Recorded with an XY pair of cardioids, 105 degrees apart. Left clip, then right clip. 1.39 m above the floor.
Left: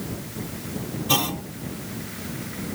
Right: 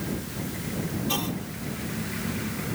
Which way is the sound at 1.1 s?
50° left.